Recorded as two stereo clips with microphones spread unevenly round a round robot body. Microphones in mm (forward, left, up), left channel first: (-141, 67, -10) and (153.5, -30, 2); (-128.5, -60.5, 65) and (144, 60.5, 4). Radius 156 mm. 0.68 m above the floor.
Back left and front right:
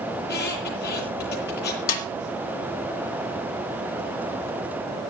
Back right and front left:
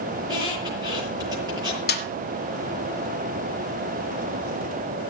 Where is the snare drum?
145° left, 1.6 m.